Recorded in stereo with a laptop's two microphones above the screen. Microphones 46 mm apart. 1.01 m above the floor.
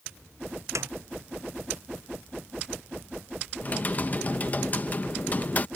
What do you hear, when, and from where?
0.8 s a snare drum: 75° right (ahead or behind)
3.6 s typing on a keyboard: 35° left (ahead or behind)